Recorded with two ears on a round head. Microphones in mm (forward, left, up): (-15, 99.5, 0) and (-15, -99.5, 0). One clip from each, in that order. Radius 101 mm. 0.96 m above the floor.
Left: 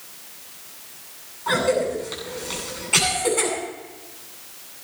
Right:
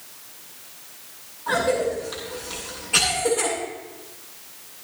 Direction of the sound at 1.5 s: 55° left (ahead or behind).